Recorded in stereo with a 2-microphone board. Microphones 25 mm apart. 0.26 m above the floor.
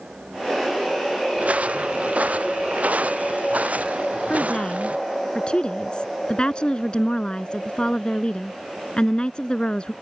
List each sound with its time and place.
1.4 s footsteps: 70° right (ahead or behind); by 5.0 s 75° right (ahead or behind)
4.3 s a woman speaking: 40° left (ahead or behind)